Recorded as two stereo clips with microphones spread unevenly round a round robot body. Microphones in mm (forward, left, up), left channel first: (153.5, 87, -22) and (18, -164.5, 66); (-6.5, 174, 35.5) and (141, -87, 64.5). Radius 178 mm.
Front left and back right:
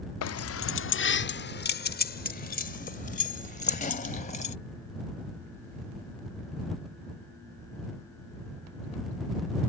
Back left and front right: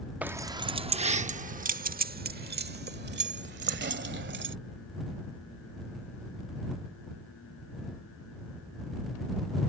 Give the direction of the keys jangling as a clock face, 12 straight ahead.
11 o'clock.